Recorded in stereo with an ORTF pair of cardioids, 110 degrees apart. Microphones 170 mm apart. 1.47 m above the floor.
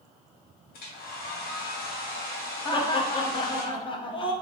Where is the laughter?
30° left, 0.9 m.